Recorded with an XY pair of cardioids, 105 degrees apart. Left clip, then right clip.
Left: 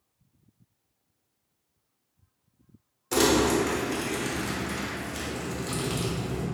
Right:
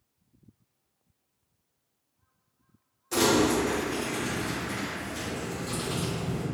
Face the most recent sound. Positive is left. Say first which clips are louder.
# left 1 dB
turn(degrees=45)